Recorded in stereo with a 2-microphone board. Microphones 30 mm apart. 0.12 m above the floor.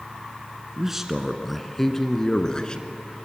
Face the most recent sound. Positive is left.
turn(degrees=30)  # may be behind; listen again after turning